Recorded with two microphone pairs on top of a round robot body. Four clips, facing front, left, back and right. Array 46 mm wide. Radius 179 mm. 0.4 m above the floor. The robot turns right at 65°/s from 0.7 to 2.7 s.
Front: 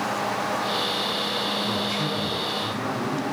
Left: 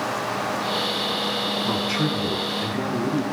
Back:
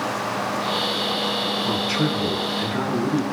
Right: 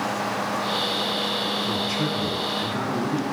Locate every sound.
1.6 s a man speaking: 135° left, 9.5 m; by 3.2 s 155° right, 9.5 m